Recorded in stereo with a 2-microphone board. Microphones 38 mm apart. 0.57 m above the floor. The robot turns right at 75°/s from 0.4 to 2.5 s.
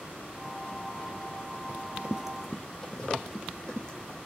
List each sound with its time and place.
1.7 s running footsteps: 40° right (ahead or behind), 0.6 m; by 4.2 s 25° left (ahead or behind), 2.5 m